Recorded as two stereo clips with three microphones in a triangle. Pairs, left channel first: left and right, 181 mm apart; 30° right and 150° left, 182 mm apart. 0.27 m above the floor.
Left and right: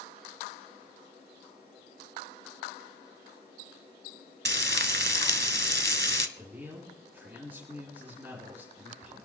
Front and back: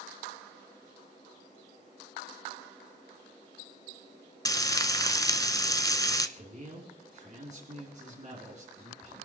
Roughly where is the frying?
Right.